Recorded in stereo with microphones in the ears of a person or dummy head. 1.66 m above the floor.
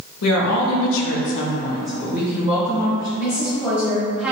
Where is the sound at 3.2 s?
5° right (ahead or behind), 1.5 m.